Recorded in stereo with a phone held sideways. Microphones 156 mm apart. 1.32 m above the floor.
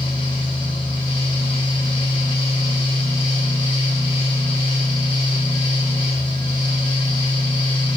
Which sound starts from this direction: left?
A fan, at 0.0 s.